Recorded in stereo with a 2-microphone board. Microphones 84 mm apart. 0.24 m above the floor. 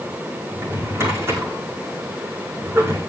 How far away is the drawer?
About 6 m.